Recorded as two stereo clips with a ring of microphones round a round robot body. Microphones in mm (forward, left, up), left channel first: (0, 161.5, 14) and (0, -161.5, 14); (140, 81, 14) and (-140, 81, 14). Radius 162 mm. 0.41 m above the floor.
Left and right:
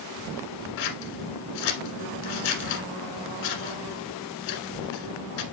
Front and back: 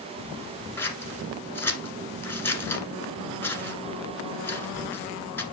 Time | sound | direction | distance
0.8 | scissors | 80° left | 1.6 m